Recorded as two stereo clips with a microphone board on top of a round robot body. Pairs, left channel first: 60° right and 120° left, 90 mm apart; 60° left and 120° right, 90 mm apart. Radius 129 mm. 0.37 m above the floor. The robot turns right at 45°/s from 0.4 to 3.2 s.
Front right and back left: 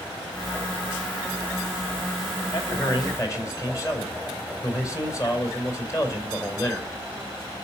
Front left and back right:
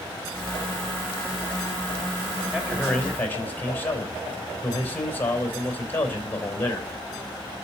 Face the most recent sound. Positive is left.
turn(degrees=-5)